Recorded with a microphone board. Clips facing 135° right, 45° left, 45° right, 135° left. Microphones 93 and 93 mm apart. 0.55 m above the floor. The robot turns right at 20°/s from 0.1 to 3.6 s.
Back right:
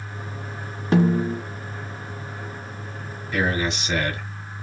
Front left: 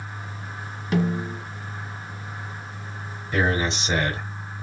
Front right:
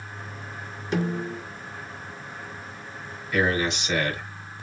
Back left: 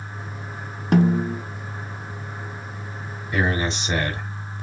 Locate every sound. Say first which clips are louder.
0.9 s a snare drum: back right 5 dB, back left 8 dB; 170° left, 1.2 m; by 1.4 s straight behind, 1.2 m
3.3 s a man speaking: front left 1 dB, even; 85° left, 1.6 m; by 4.3 s 90° left, 1.6 m